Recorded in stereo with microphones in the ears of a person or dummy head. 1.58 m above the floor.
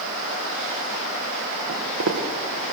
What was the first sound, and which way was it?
Footsteps, 60° right (ahead or behind).